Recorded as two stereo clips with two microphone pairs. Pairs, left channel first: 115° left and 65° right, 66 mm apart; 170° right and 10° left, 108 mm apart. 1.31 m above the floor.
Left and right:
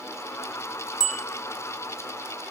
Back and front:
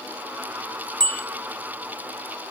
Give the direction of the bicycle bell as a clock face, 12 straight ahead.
8 o'clock.